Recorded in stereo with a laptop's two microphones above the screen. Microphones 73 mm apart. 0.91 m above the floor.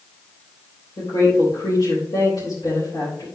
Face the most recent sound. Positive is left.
turn(degrees=75)  # may be behind; listen again after turning